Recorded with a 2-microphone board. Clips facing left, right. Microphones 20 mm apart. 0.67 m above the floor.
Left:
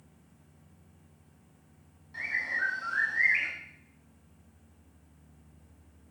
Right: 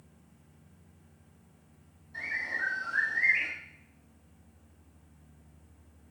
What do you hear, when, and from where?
2.1 s a bird: 30° left (ahead or behind), 1.2 m